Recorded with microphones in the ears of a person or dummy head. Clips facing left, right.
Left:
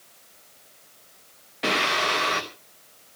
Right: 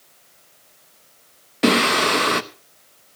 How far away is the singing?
About 1.0 m.